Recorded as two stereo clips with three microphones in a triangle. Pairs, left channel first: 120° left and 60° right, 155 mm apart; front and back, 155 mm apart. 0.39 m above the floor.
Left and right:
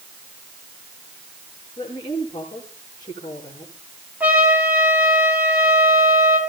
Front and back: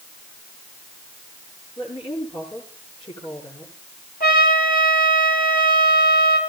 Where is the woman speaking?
55° left, 9.5 m.